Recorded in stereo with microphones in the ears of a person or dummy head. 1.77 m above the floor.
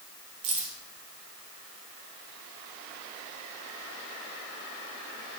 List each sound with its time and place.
0.4 s keys jangling: 30° right (ahead or behind), 0.8 m